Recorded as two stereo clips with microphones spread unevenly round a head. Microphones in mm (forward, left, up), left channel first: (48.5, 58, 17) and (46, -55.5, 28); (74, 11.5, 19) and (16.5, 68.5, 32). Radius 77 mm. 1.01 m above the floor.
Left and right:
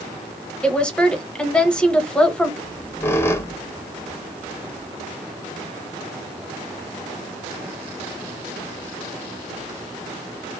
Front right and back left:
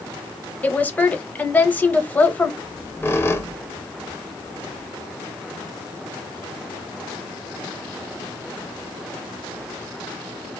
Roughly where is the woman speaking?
Ahead.